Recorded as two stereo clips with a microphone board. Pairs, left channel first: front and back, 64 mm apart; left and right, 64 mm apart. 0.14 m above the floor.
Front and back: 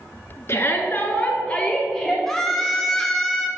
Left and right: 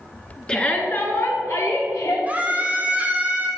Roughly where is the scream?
Right.